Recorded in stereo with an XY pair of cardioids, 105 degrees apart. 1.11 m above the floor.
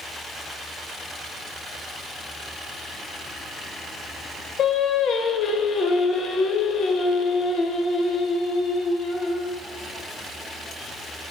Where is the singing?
65° left, 0.5 m.